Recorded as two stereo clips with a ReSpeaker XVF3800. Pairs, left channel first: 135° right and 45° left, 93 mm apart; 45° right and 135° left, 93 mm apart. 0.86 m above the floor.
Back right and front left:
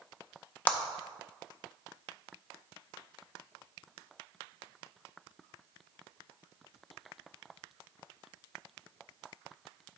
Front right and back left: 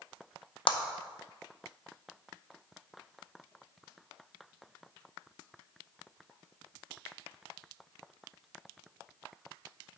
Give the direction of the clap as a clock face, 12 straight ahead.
2 o'clock.